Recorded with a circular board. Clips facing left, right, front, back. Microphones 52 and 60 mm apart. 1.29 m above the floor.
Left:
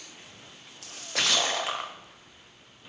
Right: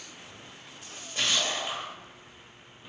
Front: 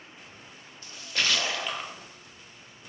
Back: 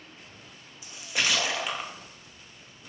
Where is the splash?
100° left, 0.6 m.